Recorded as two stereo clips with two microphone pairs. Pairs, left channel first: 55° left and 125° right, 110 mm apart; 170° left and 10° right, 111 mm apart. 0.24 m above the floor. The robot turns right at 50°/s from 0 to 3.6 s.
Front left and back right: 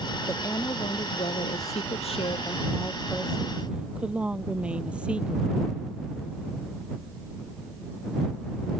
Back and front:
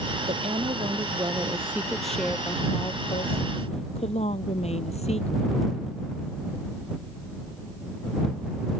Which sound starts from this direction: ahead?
A woman speaking, at 0.3 s.